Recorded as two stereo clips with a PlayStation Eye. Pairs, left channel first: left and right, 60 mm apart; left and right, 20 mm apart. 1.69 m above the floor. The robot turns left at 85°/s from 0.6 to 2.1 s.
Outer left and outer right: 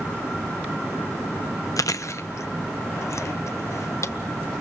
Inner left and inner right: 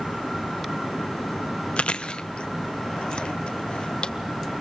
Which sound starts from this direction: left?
Chewing, at 1.8 s.